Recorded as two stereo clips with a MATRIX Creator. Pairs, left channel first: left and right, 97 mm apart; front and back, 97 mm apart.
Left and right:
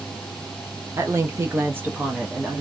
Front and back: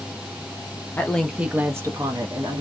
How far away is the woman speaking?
About 0.8 m.